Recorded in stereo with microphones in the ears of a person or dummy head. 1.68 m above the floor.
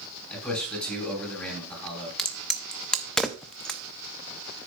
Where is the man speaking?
10° left (ahead or behind), 5 m.